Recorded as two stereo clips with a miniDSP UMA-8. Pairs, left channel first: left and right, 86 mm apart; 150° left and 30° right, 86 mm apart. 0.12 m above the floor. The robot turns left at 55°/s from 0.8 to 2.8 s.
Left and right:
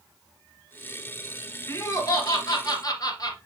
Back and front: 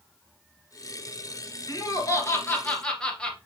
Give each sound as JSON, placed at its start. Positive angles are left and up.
{"t": 1.7, "sound": "laughter", "azimuth_deg": 135, "distance_m": 2.0}